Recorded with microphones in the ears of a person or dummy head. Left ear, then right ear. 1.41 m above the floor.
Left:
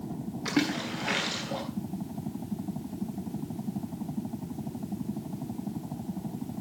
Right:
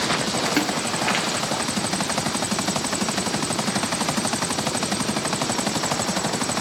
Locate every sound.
0.5 s a splash: 40° right (ahead or behind), 1.8 m